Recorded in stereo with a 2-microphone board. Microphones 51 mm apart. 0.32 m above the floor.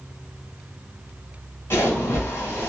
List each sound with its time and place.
1.7 s a splash: 50° left (ahead or behind), 1.3 m